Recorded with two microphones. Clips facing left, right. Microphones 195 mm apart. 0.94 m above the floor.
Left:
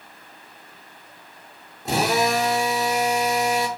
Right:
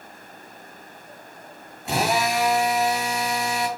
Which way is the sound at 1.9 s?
40° left (ahead or behind).